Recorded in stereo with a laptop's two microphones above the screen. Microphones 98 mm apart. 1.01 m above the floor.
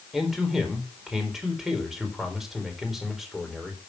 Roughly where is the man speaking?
Centre.